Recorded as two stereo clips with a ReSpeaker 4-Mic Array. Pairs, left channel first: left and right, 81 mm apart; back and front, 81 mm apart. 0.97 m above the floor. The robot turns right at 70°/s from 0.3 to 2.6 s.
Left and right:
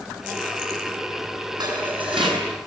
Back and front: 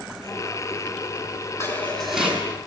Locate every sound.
1.6 s dishes clattering: 125° right, 7 m; by 2.5 s 65° right, 7 m